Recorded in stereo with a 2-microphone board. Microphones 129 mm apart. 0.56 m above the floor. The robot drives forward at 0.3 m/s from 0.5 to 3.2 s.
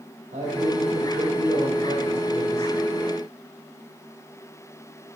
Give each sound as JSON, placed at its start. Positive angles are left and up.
{"t": 0.3, "sound": "a man speaking", "side_deg": -70, "distance_m": 1.8}